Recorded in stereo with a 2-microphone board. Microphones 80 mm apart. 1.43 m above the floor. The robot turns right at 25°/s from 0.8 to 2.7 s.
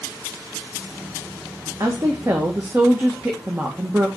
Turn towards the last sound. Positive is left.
turn(degrees=-25)  # may be behind; listen again after turning